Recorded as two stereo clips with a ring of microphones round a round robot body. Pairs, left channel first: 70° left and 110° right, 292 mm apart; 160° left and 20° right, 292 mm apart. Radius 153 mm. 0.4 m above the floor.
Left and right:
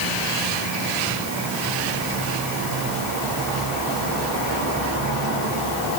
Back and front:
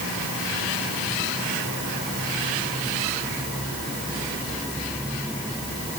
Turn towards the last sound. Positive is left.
No sound to turn to.